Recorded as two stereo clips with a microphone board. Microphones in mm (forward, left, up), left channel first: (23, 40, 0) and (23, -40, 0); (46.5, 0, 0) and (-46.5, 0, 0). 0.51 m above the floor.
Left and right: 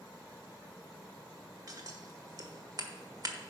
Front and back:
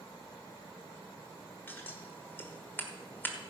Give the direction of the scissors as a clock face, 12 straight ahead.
2 o'clock.